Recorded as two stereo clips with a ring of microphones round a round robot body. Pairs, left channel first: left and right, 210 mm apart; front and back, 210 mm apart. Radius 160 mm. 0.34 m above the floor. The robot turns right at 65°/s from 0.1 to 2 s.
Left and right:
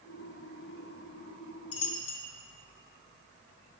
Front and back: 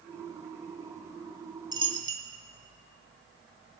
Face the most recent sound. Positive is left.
turn(degrees=125)